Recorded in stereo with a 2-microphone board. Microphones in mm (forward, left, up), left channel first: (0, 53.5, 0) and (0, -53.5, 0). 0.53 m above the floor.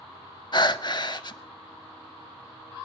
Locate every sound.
0.5 s breathing: 45° left (ahead or behind), 0.5 m